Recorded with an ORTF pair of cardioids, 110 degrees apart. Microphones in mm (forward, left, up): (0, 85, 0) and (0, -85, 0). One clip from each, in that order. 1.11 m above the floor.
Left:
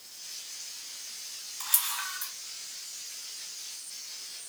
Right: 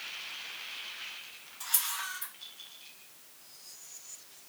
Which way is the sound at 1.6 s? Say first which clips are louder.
Left 2 dB; 45° left.